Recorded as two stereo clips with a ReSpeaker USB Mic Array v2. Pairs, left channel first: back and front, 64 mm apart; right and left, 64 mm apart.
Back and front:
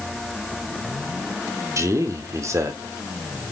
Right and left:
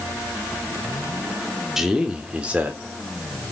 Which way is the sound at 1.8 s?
10° left.